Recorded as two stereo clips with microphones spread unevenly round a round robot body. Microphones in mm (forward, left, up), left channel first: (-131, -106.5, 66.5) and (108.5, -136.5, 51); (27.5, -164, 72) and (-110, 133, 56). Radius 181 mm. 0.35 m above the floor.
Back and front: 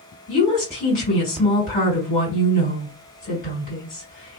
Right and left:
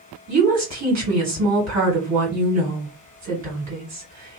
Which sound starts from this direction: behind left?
A woman speaking, at 0.3 s.